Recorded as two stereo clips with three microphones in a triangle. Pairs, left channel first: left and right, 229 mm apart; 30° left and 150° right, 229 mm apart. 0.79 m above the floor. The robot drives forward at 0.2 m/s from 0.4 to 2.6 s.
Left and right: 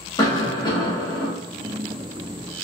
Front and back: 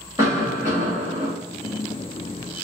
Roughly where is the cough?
Behind left.